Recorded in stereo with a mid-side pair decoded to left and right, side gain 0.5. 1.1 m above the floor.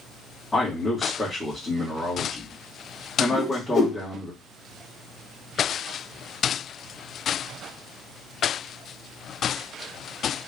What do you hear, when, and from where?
0.5 s a man speaking: 20° left, 1.3 m
3.3 s a whoosh: 60° left, 1.2 m